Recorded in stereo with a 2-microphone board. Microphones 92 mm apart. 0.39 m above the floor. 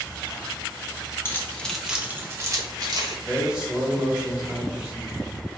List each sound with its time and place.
1.2 s keys jangling: 30° left (ahead or behind), 0.8 m; by 3.1 s 50° right (ahead or behind), 1.2 m
3.2 s a man speaking: 10° right (ahead or behind), 1.5 m